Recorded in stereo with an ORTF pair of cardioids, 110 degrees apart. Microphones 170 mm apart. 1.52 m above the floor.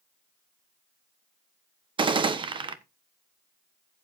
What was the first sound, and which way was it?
A gunshot, 30° right.